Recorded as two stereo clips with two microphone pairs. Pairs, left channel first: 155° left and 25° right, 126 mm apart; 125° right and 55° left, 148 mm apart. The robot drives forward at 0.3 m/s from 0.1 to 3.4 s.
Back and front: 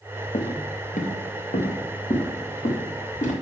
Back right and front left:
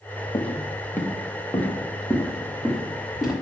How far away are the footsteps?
About 1.0 m.